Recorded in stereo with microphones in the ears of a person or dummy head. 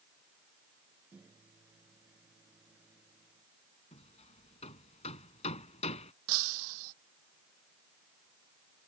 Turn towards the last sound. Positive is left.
turn(degrees=-80)